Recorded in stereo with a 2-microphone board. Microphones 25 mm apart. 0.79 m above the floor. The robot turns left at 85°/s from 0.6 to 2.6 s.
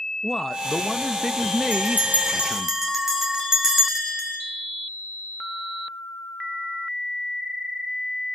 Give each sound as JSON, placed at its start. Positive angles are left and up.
{"t": 0.2, "sound": "a man speaking", "side_deg": 10, "distance_m": 0.7}
{"t": 1.7, "sound": "a bell", "azimuth_deg": -90, "distance_m": 6.0}